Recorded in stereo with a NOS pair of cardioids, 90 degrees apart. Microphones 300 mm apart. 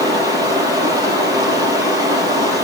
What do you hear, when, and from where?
0.0 s running water: 10° right, 4.5 m